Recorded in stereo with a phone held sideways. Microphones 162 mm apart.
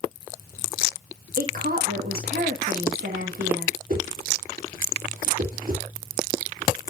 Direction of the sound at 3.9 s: 60° right (ahead or behind).